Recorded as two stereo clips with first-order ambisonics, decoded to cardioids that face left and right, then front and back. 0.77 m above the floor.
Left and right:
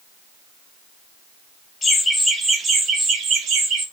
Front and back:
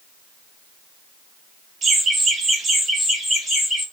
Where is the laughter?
145° left, 0.8 m; by 3.9 s 100° right, 1.2 m.